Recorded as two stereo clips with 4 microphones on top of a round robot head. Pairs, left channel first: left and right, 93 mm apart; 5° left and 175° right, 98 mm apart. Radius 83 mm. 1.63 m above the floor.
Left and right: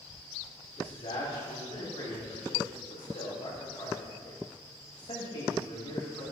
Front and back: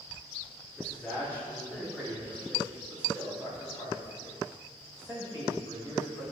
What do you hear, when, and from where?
0.8 s a man speaking: 85° left, 4 m; by 6.2 s 55° left, 8.5 m